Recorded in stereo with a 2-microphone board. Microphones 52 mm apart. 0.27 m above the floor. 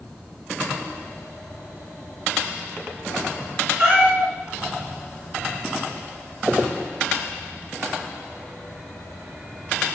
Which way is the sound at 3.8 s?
30° right (ahead or behind).